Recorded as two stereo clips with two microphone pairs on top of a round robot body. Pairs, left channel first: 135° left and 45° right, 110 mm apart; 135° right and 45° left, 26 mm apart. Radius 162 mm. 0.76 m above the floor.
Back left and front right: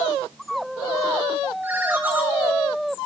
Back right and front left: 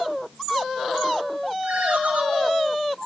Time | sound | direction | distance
1.6 | a ringtone | 30° left | 3 m